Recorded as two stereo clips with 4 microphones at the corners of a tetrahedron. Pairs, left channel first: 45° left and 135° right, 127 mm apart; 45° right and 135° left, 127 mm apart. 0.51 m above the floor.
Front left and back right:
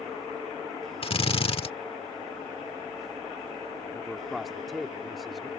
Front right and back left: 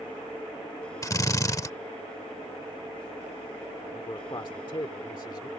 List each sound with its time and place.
1.0 s a drill: 15° left
3.9 s a man speaking: 45° right